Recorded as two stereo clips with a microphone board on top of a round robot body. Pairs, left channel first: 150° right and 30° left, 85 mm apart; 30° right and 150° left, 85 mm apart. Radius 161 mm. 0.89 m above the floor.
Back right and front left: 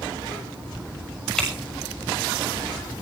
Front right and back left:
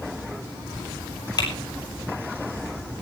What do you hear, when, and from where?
1.4 s typing on a keyboard: 65° right, 6.5 m